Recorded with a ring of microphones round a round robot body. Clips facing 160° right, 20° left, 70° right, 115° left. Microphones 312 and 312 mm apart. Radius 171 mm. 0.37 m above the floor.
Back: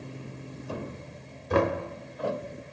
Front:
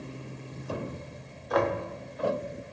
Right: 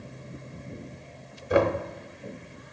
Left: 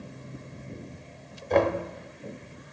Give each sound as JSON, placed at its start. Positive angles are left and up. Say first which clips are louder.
{"t": 1.5, "sound": "knocking", "louder": "back 2 dB, right 1 dB", "azimuth_deg": -140, "distance_m": 0.8}